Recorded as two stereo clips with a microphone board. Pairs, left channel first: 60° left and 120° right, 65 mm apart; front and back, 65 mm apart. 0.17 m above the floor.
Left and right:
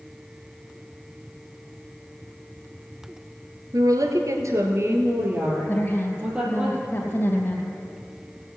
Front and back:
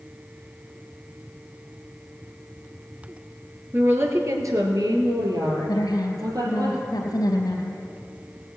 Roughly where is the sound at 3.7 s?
Behind right.